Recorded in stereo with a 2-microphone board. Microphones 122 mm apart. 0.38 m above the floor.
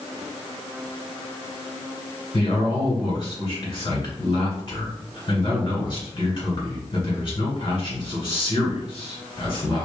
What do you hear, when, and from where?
2.3 s a man speaking: 50° left (ahead or behind), 1.9 m